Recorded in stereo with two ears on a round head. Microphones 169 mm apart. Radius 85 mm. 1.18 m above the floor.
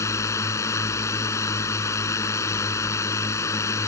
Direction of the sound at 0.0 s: 15° left (ahead or behind).